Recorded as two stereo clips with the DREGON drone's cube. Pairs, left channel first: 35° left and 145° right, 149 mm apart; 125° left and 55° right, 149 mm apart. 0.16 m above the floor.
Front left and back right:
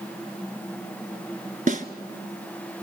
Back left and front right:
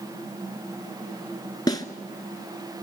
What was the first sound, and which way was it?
A snare drum, 175° right.